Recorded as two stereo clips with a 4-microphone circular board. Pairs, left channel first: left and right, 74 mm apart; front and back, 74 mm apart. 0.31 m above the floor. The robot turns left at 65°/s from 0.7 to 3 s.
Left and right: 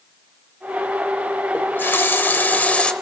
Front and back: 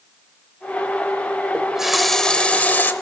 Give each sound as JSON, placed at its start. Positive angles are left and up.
{"t": 1.5, "sound": "a running tap", "azimuth_deg": 115, "distance_m": 0.6}